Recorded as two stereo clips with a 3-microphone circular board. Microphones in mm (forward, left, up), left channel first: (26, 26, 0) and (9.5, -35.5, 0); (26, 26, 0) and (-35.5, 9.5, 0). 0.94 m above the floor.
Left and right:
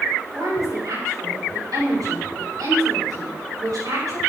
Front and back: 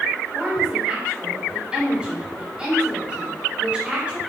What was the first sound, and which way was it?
A woman speaking, 90° right.